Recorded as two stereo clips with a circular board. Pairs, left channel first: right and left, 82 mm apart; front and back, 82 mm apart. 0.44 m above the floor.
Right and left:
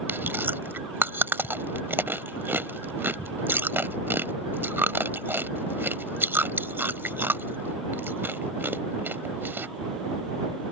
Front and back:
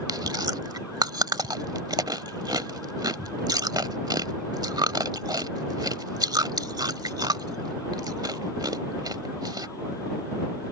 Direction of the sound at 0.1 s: 155° left.